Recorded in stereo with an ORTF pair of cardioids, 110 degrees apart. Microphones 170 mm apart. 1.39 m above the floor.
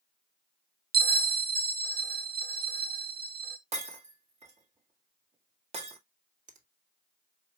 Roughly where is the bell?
Ahead.